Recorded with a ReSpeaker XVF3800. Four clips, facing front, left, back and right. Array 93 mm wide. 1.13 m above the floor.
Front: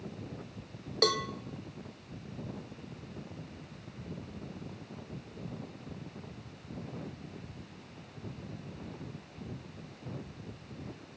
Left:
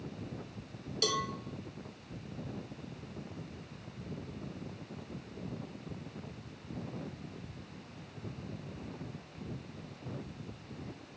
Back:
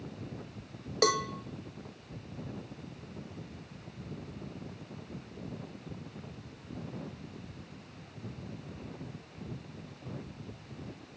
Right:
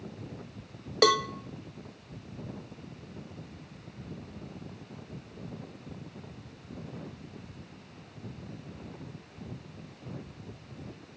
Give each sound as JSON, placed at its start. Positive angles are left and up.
{"t": 1.0, "sound": "a cowbell", "azimuth_deg": -100, "distance_m": 0.6}